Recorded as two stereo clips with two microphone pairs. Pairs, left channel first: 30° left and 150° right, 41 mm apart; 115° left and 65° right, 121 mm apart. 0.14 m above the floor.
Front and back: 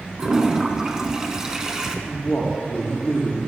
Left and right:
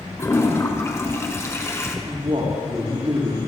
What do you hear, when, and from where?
0.2 s a toilet flushing: 150° left, 1.5 m
2.0 s a man speaking: 30° right, 6 m